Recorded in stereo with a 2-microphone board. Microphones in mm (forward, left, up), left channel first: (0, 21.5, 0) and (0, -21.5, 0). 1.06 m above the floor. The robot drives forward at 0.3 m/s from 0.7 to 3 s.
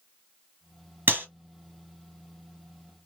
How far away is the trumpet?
I don't hear a trumpet.